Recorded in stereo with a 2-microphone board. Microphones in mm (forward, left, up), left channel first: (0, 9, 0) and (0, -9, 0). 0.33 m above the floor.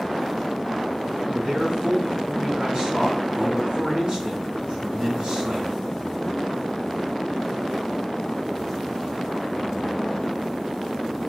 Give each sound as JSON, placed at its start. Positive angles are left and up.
{"t": 1.3, "sound": "a man speaking", "side_deg": -70, "distance_m": 2.5}